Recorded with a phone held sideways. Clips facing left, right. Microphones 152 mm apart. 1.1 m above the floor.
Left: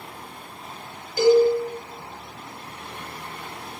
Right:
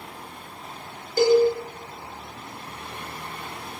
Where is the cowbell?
45° right (ahead or behind), 0.7 m.